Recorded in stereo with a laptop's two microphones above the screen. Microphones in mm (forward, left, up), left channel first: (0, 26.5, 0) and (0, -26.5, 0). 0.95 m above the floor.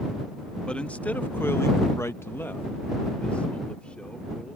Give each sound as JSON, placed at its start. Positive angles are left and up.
{"t": 0.7, "sound": "a man speaking", "side_deg": 20}